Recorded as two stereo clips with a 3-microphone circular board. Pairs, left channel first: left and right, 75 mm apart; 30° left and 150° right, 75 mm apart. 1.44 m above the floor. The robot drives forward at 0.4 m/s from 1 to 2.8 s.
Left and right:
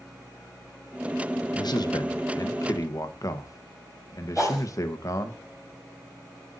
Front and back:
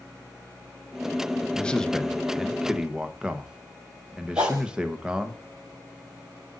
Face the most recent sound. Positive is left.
turn(degrees=-175)